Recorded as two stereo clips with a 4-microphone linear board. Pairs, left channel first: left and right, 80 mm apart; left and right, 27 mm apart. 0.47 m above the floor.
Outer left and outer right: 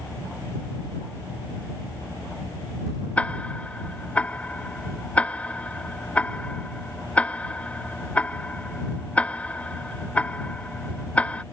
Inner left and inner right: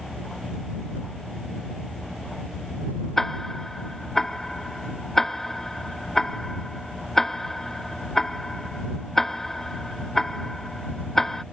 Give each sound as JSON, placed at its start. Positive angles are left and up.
{"t": 3.2, "sound": "ticking", "side_deg": 15}